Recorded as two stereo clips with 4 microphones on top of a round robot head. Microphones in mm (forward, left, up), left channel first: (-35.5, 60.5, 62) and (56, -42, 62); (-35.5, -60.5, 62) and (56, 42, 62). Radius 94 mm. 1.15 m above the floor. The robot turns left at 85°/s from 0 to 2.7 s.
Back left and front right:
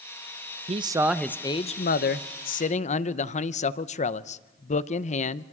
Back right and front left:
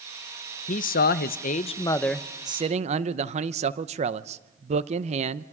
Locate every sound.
0.7 s a man speaking: 95° right, 0.7 m; by 5.5 s 90° left, 0.7 m